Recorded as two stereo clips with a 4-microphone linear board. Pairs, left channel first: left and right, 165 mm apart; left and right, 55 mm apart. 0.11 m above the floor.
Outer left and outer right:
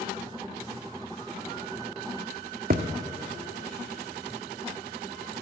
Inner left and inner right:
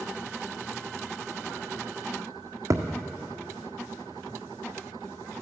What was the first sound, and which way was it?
A thud, 60° right (ahead or behind).